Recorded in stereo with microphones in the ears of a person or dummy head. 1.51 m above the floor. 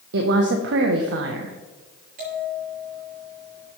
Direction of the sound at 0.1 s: 75° right (ahead or behind).